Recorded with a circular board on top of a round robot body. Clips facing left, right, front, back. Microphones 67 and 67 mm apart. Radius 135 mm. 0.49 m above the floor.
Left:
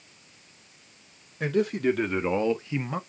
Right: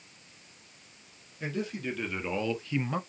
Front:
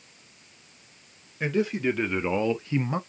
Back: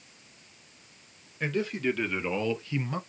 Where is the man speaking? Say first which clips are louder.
Left 10 dB, front 4 dB; 75° left, 1.6 m; by 3.0 s 5° left, 0.9 m.